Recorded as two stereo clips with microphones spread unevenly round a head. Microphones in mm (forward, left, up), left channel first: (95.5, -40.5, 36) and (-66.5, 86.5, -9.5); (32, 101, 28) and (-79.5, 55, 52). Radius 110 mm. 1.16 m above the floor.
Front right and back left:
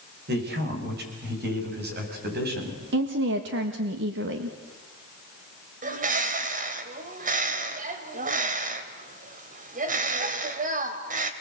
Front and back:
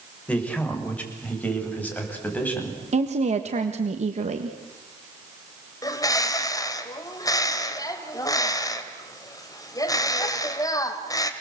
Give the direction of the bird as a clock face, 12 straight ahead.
9 o'clock.